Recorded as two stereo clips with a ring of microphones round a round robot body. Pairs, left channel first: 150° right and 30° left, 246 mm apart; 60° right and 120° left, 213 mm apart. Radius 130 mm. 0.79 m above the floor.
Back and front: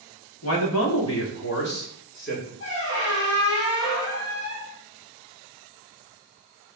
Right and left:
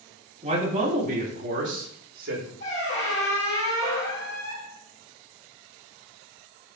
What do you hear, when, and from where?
0.4 s a man speaking: 175° right, 2 m; by 2.5 s 155° left, 3 m
2.6 s a squeak: 110° right, 3 m